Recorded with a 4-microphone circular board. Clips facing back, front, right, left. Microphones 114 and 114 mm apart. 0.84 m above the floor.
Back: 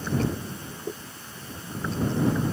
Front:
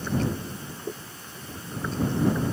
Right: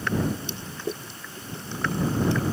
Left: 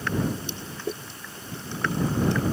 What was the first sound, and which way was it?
Only background noise.